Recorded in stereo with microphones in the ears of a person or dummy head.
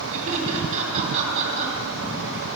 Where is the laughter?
40° right (ahead or behind), 3.5 m.